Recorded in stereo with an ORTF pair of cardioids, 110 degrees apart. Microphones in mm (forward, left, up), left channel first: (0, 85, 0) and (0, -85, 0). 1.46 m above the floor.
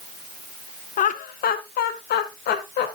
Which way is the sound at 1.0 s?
50° left.